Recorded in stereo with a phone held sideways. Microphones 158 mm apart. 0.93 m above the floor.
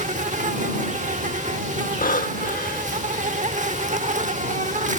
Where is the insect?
50° right (ahead or behind).